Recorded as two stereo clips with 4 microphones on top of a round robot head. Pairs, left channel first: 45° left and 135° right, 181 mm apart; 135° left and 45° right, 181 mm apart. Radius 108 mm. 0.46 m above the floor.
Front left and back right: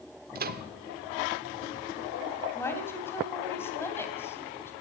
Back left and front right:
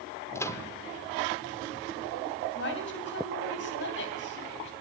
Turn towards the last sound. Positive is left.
turn(degrees=120)